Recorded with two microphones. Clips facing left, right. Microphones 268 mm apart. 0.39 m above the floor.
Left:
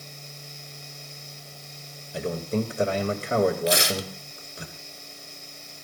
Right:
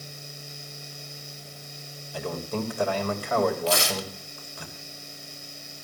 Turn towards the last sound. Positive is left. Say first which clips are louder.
# left 2 dB
turn(degrees=20)  # may be behind; listen again after turning